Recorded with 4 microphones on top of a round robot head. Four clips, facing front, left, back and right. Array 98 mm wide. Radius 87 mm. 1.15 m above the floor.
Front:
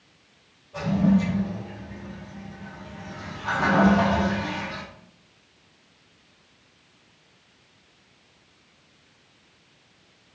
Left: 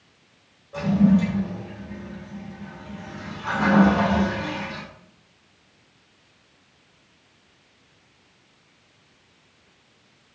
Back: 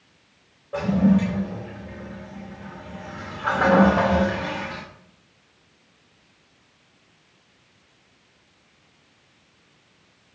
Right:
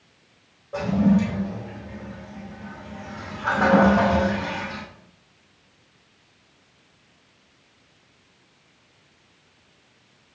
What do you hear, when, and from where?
0.7 s a toilet flushing: 150° right, 4 m